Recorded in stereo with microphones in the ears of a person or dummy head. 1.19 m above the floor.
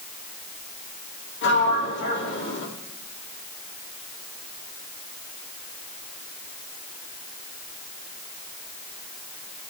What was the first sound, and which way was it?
A sliding door, 60° left (ahead or behind).